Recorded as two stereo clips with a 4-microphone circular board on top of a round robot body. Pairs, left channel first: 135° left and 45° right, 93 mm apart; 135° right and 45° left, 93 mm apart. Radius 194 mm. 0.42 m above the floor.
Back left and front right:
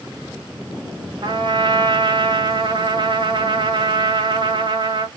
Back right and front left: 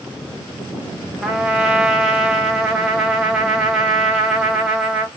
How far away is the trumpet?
About 1.5 m.